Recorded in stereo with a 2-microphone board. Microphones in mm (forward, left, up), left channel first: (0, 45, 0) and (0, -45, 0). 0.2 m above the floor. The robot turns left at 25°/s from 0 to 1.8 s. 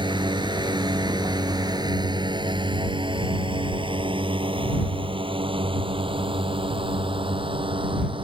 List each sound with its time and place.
0.0 s a drone: 60° right (ahead or behind); by 8.2 s 70° right (ahead or behind)